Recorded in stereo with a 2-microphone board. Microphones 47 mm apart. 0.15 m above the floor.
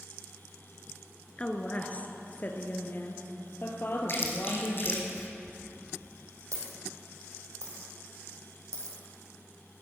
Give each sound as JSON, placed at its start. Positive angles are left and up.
{"t": 1.4, "sound": "a woman speaking", "side_deg": 25, "distance_m": 1.6}
{"t": 4.1, "sound": "chewing", "side_deg": 50, "distance_m": 2.0}
{"t": 5.5, "sound": "a dropped coin", "side_deg": -80, "distance_m": 3.0}